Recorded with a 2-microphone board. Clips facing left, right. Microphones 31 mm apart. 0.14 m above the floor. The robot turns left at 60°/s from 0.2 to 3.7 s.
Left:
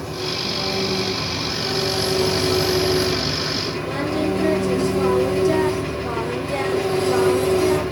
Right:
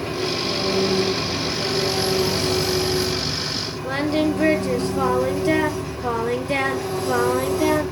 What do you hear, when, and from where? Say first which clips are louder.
0.0 s an engine running: right 2 dB; 45° right, 2 m; by 7.9 s 105° left, 2 m
3.8 s singing: right 4 dB; 45° right (ahead or behind), 1.1 m